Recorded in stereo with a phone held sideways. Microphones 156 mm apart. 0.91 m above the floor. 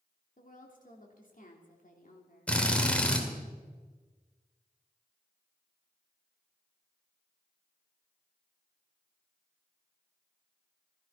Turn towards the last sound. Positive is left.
turn(degrees=10)  # may be behind; listen again after turning